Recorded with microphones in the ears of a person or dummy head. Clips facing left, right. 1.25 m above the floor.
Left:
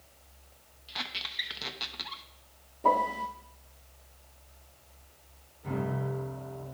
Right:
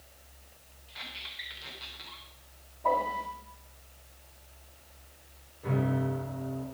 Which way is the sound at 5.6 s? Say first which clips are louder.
Right 4 dB; 85° right.